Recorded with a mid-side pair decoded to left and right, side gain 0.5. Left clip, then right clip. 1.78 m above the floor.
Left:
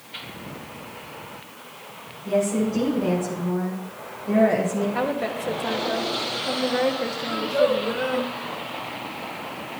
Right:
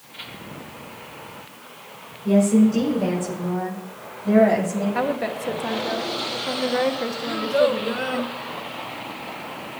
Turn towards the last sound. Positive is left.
turn(degrees=-40)